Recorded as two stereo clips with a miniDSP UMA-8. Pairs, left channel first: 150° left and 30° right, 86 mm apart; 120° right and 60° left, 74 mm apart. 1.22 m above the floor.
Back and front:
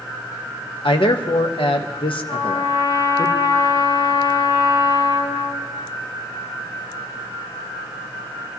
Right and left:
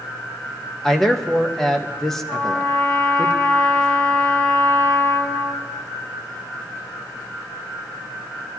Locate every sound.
0.8 s a man speaking: 155° left, 1.3 m
2.3 s a trumpet: 170° left, 6.5 m